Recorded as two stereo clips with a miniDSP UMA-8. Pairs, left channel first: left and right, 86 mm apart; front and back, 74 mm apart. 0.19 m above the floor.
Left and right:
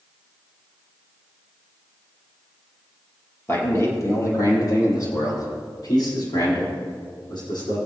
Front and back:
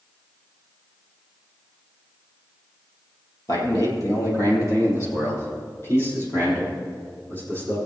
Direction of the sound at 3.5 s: 30° left.